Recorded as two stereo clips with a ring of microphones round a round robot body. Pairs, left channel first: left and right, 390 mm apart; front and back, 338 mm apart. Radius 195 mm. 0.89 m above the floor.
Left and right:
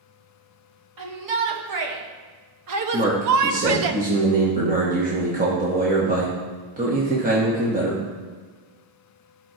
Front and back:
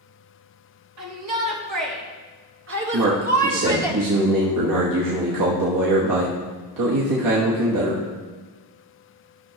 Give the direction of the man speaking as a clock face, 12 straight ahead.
5 o'clock.